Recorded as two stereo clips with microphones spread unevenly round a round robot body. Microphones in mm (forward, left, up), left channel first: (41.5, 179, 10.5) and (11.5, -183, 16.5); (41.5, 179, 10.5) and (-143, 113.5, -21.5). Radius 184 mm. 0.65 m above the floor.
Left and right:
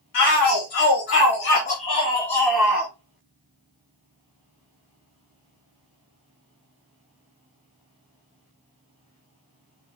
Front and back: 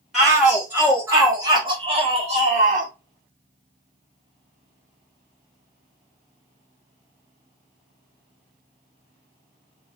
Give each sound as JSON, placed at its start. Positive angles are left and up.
{"t": 0.1, "sound": "a shout", "azimuth_deg": 115, "distance_m": 1.9}